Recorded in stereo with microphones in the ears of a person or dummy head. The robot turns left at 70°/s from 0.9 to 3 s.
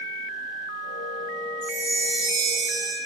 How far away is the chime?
About 3.5 m.